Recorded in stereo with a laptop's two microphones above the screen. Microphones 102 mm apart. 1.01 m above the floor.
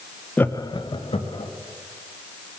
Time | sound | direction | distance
0.4 | laughter | 15° left (ahead or behind) | 0.6 m